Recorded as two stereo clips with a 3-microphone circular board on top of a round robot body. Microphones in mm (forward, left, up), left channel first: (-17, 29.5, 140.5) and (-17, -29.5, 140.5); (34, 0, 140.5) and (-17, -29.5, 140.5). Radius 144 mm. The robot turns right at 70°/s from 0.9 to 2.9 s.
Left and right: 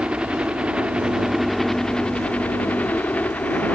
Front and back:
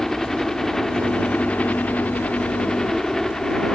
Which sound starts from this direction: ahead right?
A helicopter, at 0.0 s.